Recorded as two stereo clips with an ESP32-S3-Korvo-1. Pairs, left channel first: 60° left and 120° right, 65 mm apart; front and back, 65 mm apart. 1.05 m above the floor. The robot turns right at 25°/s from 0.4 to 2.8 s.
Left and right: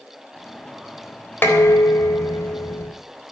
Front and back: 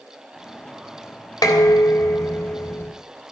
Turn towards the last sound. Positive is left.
turn(degrees=40)